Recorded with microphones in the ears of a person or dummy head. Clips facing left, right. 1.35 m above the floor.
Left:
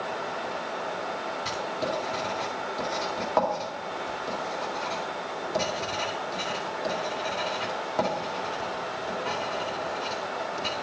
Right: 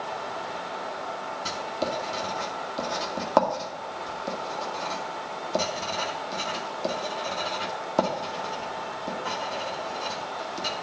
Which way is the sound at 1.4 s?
60° right (ahead or behind).